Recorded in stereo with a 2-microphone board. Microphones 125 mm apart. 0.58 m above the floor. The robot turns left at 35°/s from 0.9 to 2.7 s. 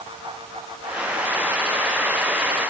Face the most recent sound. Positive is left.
No sound to turn to.